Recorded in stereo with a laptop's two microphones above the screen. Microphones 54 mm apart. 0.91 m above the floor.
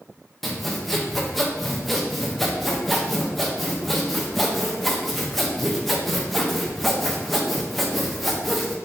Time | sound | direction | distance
0.4 | sawing | 5° left (ahead or behind) | 0.5 m